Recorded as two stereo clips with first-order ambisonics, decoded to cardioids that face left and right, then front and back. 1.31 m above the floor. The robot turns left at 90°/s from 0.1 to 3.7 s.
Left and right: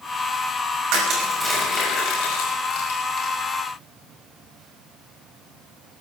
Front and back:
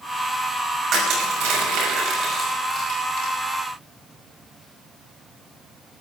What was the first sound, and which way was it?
Crushing, 120° right.